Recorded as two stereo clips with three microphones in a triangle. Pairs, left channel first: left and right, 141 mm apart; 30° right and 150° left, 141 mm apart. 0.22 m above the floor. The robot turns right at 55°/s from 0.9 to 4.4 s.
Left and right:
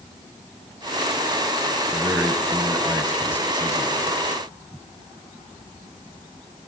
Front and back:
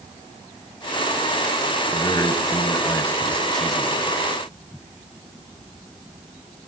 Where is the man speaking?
40° right, 1.1 m; by 4.0 s 75° left, 1.1 m.